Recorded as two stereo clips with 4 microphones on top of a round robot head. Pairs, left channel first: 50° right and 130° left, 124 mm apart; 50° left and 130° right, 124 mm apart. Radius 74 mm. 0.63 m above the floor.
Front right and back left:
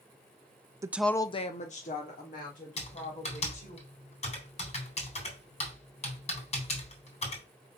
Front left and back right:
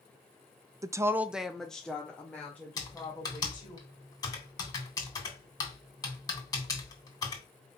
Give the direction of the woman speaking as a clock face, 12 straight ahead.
6 o'clock.